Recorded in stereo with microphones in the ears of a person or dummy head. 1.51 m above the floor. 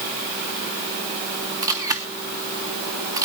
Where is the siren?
I don't hear a siren.